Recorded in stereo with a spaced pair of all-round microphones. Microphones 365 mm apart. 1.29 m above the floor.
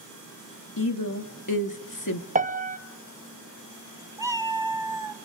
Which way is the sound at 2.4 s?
20° right (ahead or behind).